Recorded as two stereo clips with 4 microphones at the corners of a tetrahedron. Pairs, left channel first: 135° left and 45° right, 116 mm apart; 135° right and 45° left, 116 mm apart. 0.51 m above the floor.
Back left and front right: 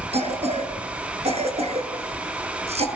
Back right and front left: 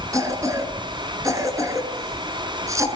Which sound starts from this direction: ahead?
A cough, at 0.1 s.